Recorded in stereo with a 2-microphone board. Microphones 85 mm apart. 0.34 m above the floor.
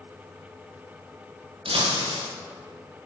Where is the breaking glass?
85° right, 3 m.